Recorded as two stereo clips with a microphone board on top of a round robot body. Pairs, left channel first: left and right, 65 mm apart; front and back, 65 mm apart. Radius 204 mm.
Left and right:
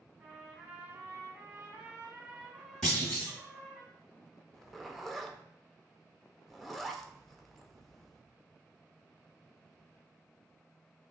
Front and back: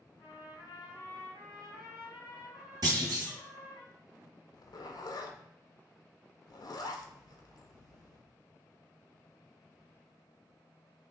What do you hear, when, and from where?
0.2 s a trumpet: 10° right, 0.8 m
2.8 s a clunk: 170° left, 0.9 m
4.5 s a zipper: straight ahead, 0.6 m